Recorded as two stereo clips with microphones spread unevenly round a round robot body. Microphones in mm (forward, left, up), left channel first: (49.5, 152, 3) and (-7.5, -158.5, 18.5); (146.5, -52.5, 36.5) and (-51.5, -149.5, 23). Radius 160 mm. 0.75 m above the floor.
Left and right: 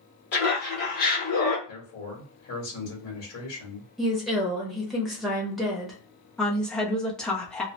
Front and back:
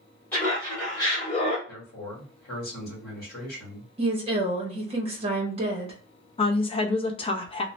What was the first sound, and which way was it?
Laughter, 110° left.